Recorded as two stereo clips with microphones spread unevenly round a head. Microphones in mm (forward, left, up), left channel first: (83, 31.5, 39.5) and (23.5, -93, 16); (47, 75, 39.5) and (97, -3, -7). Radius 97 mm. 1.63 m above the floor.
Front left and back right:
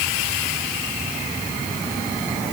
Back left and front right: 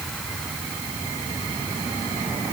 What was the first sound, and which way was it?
Only background noise.